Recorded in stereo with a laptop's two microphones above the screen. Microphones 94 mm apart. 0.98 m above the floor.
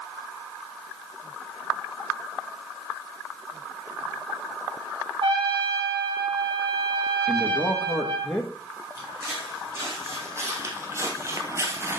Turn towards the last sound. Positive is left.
turn(degrees=-25)  # may be behind; listen again after turning